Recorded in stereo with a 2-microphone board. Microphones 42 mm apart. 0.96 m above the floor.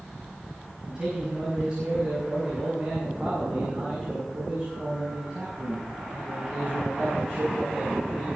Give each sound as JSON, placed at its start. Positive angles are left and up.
{"t": 0.8, "sound": "a man speaking", "side_deg": -20, "distance_m": 5.0}